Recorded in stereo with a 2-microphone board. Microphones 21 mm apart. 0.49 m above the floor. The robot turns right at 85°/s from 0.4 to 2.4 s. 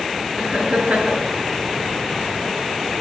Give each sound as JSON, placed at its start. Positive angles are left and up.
{"t": 0.4, "sound": "laughter", "azimuth_deg": -130, "distance_m": 9.0}